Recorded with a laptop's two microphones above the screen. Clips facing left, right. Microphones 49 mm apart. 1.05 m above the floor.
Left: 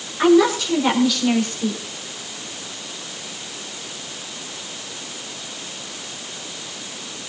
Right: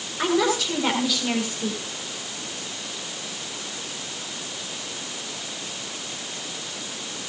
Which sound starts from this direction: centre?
A woman speaking, at 0.2 s.